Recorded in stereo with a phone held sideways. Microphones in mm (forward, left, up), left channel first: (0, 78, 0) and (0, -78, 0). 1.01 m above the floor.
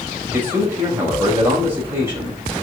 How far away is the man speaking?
About 5 m.